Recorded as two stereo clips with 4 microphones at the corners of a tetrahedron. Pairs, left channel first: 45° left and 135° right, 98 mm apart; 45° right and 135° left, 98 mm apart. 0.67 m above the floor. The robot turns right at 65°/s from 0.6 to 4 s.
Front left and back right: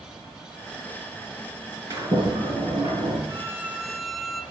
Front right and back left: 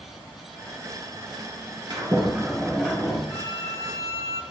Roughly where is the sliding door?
Behind.